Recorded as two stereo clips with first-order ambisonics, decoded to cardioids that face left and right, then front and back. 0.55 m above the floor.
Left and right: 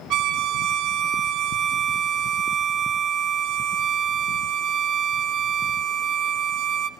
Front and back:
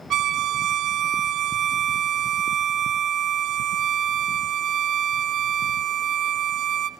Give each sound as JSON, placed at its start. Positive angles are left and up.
{"t": 0.1, "sound": "a violin", "azimuth_deg": -125, "distance_m": 0.7}